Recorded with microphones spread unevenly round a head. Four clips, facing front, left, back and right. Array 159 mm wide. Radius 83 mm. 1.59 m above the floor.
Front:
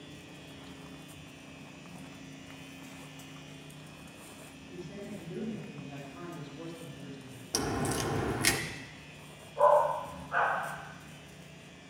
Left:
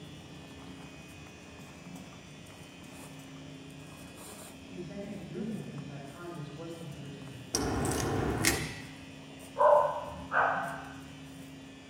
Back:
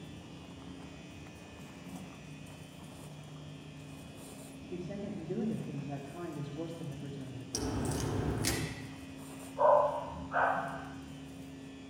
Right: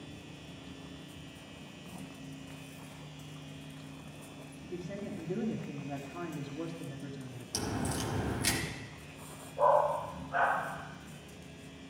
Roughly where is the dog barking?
Ahead left.